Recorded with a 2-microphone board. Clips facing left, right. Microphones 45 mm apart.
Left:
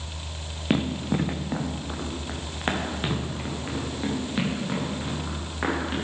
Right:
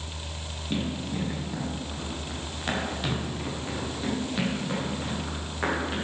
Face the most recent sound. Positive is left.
turn(degrees=10)  # may be behind; listen again after turning